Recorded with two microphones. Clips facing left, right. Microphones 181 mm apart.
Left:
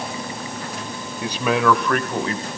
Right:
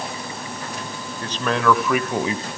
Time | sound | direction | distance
1.2 | a man speaking | 15° left (ahead or behind) | 1.9 m